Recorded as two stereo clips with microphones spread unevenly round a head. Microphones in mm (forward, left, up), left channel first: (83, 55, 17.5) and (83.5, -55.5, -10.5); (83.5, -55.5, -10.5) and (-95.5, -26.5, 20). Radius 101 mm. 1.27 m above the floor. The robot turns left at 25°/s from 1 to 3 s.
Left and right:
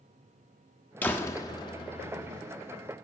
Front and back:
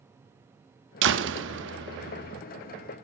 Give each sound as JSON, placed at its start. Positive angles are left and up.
{"t": 1.0, "sound": "a door slam", "azimuth_deg": 170, "distance_m": 1.3}